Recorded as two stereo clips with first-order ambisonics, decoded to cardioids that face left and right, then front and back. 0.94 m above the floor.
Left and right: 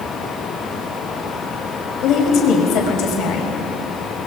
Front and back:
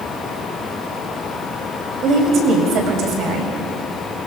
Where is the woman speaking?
130° left, 5 m.